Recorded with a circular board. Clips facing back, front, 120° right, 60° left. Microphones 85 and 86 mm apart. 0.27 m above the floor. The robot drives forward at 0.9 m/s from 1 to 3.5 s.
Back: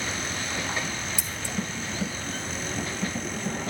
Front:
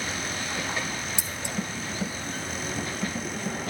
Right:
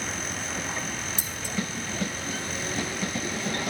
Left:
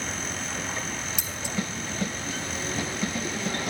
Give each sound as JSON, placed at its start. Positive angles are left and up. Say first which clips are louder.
{"t": 1.2, "sound": "scissors", "louder": "even, left 1 dB", "azimuth_deg": -65, "distance_m": 1.9}